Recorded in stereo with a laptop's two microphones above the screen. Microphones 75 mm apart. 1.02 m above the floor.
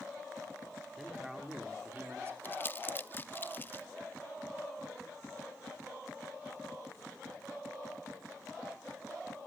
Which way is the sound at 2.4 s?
30° left (ahead or behind).